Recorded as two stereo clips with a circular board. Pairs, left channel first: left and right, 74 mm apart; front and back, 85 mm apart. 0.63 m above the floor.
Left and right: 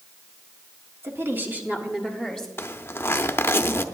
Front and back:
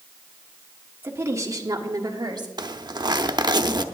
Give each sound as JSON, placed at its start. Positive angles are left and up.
{"t": 1.0, "sound": "a woman speaking", "azimuth_deg": -125, "distance_m": 1.6}
{"t": 2.6, "sound": "a zipper", "azimuth_deg": 150, "distance_m": 0.6}